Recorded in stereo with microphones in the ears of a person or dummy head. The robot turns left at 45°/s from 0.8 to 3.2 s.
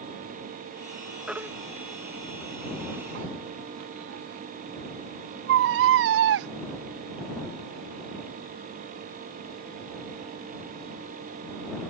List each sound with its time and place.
1.3 s a baby crying: centre (ahead or behind); by 6.5 s 65° right (ahead or behind)